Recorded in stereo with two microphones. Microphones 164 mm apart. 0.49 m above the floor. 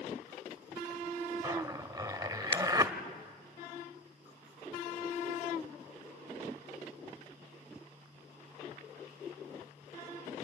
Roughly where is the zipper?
Right.